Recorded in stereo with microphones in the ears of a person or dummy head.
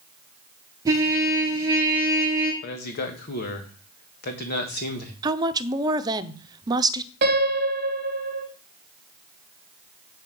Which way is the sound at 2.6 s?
50° left (ahead or behind).